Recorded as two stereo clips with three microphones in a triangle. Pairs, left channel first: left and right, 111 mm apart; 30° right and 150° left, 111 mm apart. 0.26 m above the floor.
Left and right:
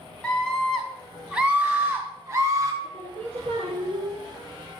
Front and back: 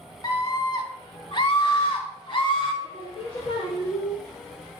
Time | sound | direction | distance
0.2 | a scream | 10° left | 2.5 m
2.8 | singing | 65° right | 4 m